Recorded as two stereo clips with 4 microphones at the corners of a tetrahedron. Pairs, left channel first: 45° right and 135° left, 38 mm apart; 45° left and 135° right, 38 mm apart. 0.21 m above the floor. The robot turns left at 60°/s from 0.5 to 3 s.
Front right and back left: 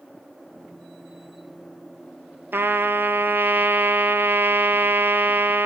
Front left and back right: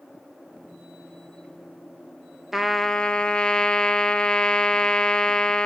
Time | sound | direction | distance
2.5 | a trumpet | 145° left | 0.9 m